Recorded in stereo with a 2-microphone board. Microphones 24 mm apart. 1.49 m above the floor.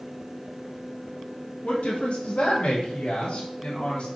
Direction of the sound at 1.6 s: 70° left (ahead or behind).